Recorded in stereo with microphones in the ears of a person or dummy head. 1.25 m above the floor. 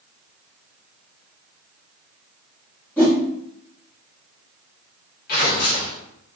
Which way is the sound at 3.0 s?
5° left (ahead or behind).